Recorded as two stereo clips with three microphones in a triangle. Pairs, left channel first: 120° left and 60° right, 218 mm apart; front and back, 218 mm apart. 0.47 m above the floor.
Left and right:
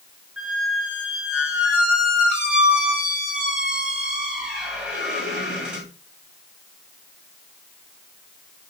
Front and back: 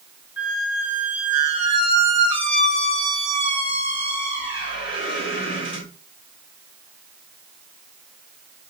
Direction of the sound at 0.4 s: 25° left.